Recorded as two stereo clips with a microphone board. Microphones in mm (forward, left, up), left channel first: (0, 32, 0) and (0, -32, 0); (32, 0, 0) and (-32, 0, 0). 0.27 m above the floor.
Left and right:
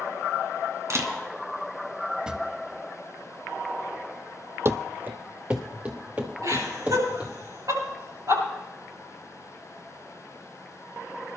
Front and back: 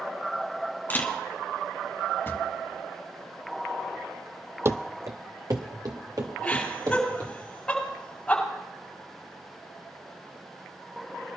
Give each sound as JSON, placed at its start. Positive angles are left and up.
{"t": 0.9, "sound": "a camera shutter", "azimuth_deg": -55, "distance_m": 1.6}
{"t": 2.3, "sound": "a drawer", "azimuth_deg": -20, "distance_m": 0.7}
{"t": 4.7, "sound": "running footsteps", "azimuth_deg": -135, "distance_m": 0.5}
{"t": 6.4, "sound": "laughter", "azimuth_deg": -75, "distance_m": 6.5}